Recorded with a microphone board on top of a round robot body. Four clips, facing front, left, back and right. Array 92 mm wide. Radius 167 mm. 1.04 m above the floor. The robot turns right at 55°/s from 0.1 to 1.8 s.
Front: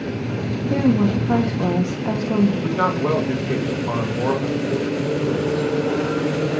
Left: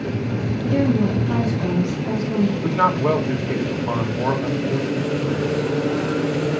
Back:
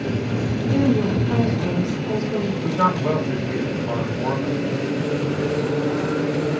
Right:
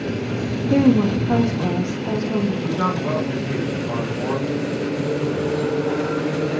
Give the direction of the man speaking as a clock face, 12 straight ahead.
10 o'clock.